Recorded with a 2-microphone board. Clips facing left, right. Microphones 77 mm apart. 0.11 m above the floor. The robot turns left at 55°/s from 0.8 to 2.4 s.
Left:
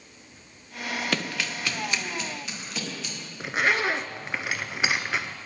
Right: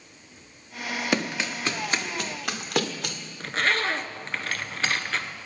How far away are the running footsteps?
About 0.8 m.